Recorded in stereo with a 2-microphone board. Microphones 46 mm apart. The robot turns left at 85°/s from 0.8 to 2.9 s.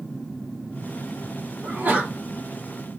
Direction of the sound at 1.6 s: 110° right.